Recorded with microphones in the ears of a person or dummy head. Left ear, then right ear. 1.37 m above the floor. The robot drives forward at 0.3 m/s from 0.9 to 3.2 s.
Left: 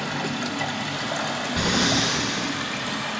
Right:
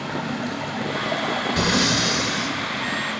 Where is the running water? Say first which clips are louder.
Even; 75° left (ahead or behind), 2.5 m; by 3.2 s 60° left (ahead or behind), 2.5 m.